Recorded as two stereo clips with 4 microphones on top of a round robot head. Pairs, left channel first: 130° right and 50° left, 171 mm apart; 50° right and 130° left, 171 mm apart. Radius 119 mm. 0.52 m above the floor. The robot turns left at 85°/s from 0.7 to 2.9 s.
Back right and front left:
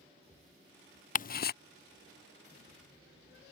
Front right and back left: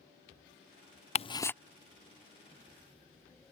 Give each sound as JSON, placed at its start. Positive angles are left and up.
{"t": 1.1, "sound": "ticking", "azimuth_deg": -95}